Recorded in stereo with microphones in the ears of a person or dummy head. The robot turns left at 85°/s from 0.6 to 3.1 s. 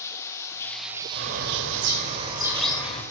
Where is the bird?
50° right, 3 m; by 3.0 s 150° left, 3 m.